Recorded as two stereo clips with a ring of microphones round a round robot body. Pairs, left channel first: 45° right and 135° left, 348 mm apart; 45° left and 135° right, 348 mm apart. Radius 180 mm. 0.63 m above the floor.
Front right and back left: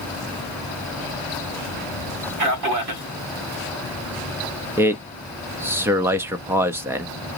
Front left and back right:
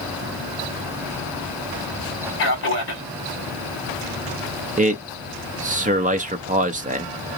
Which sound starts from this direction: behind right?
A man speaking, at 4.8 s.